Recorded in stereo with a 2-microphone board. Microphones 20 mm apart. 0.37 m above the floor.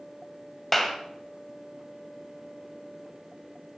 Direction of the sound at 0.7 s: 5° left (ahead or behind).